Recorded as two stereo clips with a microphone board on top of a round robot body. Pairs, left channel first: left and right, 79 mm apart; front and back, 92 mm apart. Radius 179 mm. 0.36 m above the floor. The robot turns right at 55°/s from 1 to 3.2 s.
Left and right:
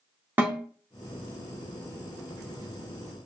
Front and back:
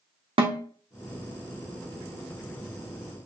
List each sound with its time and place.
0.4 s a snare drum: 155° right, 1.0 m